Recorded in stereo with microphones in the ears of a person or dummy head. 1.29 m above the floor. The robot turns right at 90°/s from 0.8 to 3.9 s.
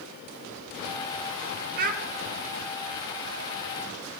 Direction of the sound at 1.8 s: 55° right (ahead or behind).